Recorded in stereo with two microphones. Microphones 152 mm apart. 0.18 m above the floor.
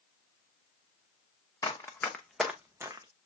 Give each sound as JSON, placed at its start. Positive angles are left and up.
{"t": 1.6, "sound": "running footsteps", "side_deg": 20, "distance_m": 1.1}